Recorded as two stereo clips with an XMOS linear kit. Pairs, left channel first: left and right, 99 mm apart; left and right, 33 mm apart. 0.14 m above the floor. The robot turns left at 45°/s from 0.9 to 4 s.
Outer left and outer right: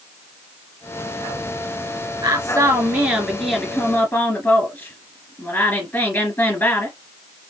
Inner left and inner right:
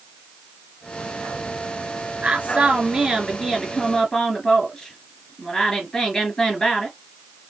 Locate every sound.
2.2 s a woman speaking: 130° right, 2.5 m; by 7.0 s 150° left, 2.5 m